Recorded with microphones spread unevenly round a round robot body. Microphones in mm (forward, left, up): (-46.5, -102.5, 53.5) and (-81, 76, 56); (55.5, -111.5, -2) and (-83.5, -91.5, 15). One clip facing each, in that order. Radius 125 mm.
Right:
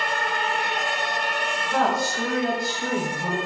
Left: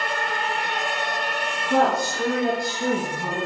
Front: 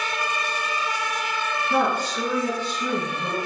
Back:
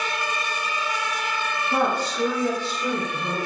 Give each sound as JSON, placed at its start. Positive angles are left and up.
{"t": 1.7, "sound": "a woman speaking", "azimuth_deg": 45, "distance_m": 3.5}